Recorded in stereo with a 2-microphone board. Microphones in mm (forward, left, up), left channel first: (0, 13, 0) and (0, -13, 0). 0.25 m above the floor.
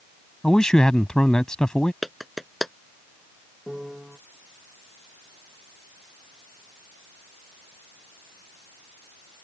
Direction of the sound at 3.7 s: 20° right (ahead or behind).